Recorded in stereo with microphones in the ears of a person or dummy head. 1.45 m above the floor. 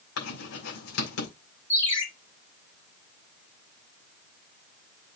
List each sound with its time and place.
0.2 s writing: 75° left (ahead or behind), 5.5 m
1.7 s a ringtone: 35° left (ahead or behind), 2 m